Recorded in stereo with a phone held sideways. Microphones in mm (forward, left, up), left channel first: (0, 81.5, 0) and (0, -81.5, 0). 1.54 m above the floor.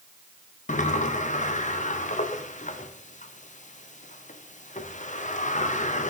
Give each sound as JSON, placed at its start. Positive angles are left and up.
{"t": 0.7, "sound": "a sliding door", "side_deg": 50, "distance_m": 0.6}